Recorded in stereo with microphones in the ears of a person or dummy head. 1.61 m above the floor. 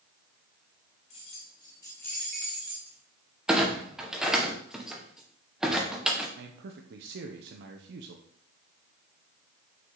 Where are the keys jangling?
35° left (ahead or behind), 1.2 m; by 3.0 s 10° right (ahead or behind), 1.4 m.